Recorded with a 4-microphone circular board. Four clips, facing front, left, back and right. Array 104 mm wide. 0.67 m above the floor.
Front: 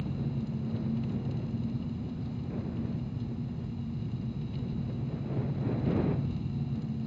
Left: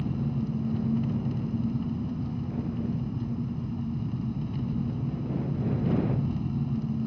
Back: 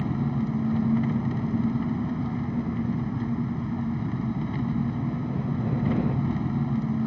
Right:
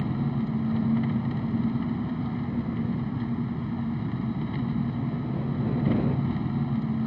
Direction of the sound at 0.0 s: 150° right.